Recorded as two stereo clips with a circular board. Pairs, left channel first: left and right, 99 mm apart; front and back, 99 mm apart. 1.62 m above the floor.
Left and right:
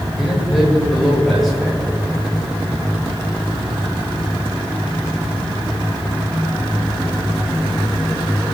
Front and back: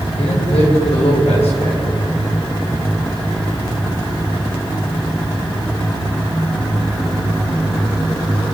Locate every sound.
0.2 s a man speaking: straight ahead, 8.5 m